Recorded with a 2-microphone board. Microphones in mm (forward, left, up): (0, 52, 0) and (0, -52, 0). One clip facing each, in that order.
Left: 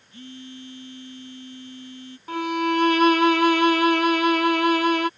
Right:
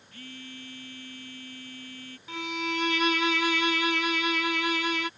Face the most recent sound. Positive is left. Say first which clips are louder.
# left 10 dB
turn(degrees=45)  # may be behind; listen again after turning